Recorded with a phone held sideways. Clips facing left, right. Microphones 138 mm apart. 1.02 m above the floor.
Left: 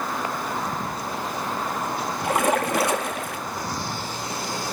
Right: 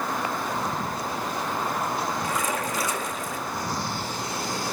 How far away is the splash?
About 1.0 m.